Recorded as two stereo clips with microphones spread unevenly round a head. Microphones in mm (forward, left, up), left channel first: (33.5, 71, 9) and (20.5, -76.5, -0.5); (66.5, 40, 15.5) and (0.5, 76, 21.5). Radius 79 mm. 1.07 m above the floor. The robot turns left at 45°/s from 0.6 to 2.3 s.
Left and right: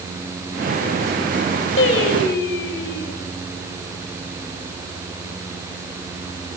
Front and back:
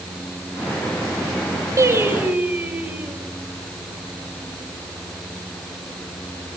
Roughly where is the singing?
Left.